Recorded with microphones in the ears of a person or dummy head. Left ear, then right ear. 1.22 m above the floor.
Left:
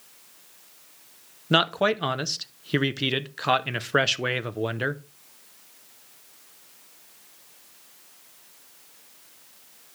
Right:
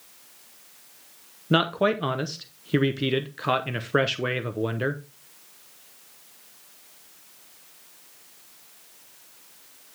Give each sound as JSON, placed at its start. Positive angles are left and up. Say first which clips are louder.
{"t": 1.5, "sound": "a man speaking", "louder": "left 1 dB", "side_deg": 30, "distance_m": 0.7}